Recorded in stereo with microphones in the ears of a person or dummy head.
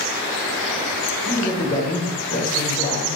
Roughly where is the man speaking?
Left.